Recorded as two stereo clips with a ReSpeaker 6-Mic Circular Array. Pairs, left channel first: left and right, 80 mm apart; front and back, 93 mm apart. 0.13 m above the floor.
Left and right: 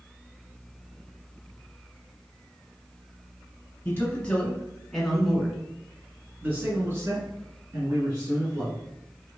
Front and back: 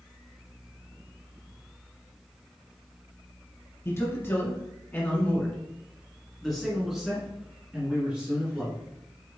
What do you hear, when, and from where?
3.9 s a man speaking: 40° left, 1.7 m; by 8.8 s 110° right, 2 m